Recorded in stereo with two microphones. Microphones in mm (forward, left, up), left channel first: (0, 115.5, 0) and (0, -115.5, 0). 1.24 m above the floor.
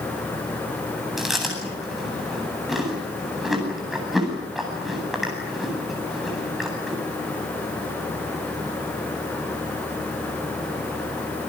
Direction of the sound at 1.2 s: Centre (ahead or behind).